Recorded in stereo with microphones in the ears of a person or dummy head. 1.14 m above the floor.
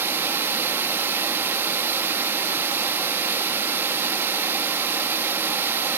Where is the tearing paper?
No tearing paper in this recording.